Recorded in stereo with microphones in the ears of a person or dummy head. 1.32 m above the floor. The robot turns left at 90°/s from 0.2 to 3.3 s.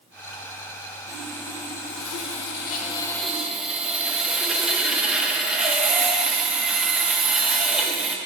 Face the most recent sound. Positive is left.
turn(degrees=-5)